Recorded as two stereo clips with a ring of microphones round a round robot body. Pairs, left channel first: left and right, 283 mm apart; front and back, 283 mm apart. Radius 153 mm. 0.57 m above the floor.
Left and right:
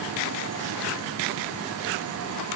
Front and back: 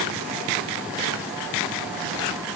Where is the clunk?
No clunk in this recording.